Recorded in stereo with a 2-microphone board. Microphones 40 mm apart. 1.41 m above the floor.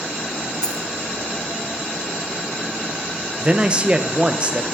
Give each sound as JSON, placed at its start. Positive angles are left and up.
{"t": 0.6, "sound": "a dropped coin", "side_deg": 20, "distance_m": 1.2}
{"t": 3.4, "sound": "a man speaking", "side_deg": -25, "distance_m": 0.9}